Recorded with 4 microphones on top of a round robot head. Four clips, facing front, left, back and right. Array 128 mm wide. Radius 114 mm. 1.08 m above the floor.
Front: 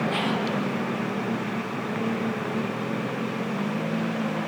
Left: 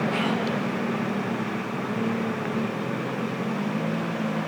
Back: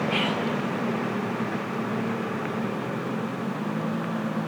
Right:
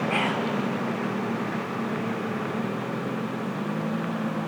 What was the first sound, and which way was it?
Whispering, 65° right.